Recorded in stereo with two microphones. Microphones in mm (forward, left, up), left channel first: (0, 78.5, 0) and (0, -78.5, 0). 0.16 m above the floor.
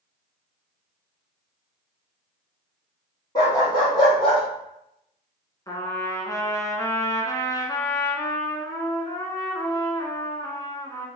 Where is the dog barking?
25° left (ahead or behind), 2 m; by 4.4 s 35° left (ahead or behind), 3 m.